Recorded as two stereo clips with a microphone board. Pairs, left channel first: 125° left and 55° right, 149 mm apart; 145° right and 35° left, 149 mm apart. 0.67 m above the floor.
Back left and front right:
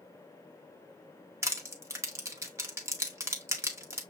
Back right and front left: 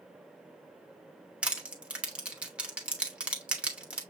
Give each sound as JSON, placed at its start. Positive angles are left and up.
{"t": 1.4, "sound": "crushing", "azimuth_deg": -30, "distance_m": 0.9}